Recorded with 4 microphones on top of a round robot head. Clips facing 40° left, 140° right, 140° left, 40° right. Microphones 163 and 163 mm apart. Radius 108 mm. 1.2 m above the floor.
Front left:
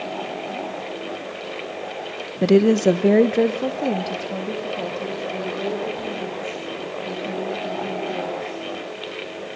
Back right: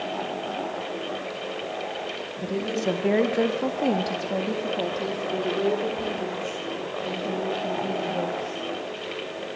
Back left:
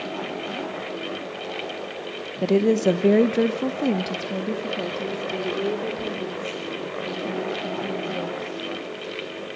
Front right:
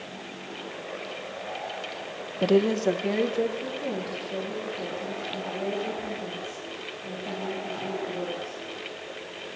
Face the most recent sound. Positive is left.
turn(degrees=155)